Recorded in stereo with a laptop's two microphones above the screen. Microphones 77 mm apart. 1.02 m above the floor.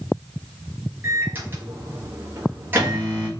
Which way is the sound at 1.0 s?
25° right (ahead or behind).